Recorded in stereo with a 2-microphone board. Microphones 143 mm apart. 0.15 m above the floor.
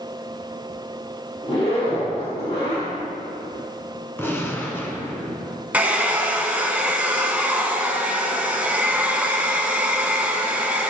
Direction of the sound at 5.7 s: 10° right (ahead or behind).